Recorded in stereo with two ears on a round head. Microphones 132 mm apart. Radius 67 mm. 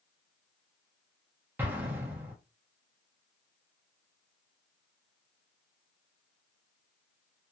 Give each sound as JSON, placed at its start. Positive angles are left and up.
{"t": 1.6, "sound": "an explosion", "side_deg": -10, "distance_m": 0.8}